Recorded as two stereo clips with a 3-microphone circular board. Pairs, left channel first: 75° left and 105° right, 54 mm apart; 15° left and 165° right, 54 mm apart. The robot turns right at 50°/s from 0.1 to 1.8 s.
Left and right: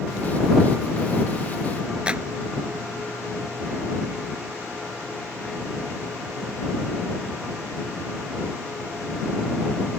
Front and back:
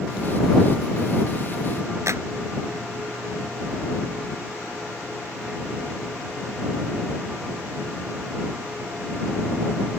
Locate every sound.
2.1 s a clap: 170° right